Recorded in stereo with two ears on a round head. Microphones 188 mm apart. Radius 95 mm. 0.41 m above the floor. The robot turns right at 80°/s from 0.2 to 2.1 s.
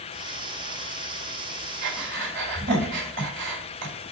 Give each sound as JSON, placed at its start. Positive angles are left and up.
{"t": 1.8, "sound": "breathing", "side_deg": -60, "distance_m": 2.5}